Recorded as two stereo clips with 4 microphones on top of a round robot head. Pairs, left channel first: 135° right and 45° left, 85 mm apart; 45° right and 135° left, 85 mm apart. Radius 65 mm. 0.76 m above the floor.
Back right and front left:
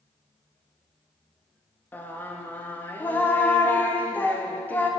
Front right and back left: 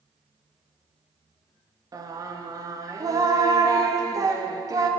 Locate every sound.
1.9 s singing: 165° left, 1.1 m